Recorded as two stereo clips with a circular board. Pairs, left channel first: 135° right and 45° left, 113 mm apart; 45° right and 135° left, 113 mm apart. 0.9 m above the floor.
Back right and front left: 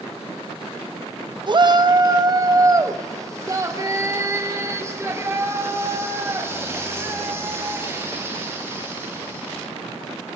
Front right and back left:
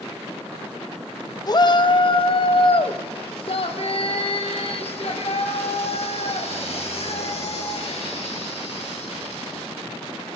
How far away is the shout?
About 1.0 m.